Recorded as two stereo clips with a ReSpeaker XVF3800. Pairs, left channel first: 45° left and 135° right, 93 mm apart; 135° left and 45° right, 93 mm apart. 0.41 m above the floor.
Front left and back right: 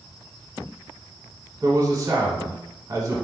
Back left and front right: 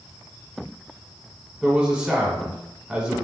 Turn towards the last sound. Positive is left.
turn(degrees=-120)